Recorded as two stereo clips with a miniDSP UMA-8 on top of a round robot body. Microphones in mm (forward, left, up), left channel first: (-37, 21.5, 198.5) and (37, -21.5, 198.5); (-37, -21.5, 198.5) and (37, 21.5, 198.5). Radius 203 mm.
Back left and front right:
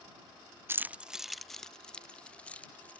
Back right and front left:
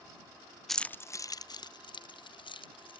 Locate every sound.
0.7 s keys jangling: 60° right; by 3.0 s 135° right